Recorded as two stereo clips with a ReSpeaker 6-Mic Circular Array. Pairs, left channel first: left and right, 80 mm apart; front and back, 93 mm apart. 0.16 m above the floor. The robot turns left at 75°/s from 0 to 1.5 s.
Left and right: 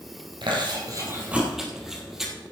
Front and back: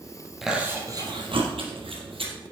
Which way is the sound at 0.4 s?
90° right.